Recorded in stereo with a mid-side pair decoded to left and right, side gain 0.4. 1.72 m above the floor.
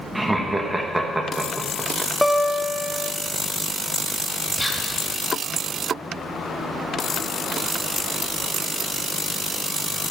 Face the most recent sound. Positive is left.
turn(degrees=10)